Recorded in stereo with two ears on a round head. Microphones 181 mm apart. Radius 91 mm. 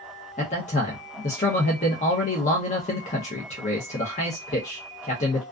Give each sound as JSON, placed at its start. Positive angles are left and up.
{"t": 0.4, "sound": "a man speaking", "side_deg": 35, "distance_m": 0.6}